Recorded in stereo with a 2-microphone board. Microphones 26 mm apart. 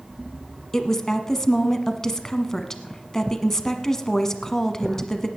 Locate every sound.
0.7 s a woman speaking: 20° left (ahead or behind), 1.2 m